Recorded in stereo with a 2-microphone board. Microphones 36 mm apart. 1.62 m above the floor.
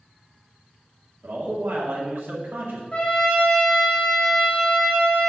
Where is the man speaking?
75° right (ahead or behind), 1.7 m.